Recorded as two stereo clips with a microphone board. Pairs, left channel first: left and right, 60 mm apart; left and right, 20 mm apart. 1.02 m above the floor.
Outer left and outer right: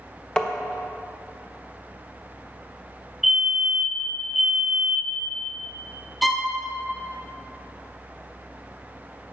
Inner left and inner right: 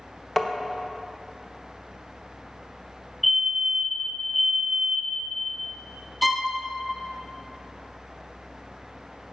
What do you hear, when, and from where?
0.4 s tapping: 15° left (ahead or behind), 0.7 m
3.2 s a fire alarm: 5° right (ahead or behind), 1.1 m
6.2 s a violin: centre (ahead or behind), 0.8 m